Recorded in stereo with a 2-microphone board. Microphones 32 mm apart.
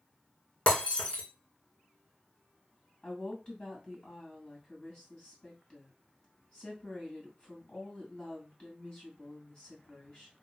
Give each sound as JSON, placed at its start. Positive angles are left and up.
{"t": 0.7, "sound": "breaking glass", "side_deg": 30, "distance_m": 2.5}
{"t": 3.0, "sound": "a woman speaking", "side_deg": 25, "distance_m": 2.5}